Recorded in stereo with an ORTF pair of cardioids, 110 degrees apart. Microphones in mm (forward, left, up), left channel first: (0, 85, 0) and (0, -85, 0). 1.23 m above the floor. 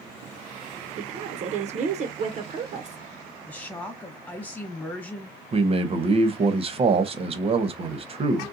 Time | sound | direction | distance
1.0 | a woman speaking | 45° right | 0.7 m
3.5 | a woman speaking | 10° left | 1.4 m
5.5 | a man speaking | 35° right | 0.9 m